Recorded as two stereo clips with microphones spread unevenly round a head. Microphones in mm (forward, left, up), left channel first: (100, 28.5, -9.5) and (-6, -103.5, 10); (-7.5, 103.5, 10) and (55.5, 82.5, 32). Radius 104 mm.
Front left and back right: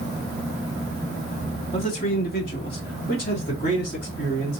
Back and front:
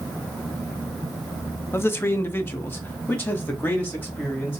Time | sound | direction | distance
1.7 | a man speaking | 110° left | 0.7 m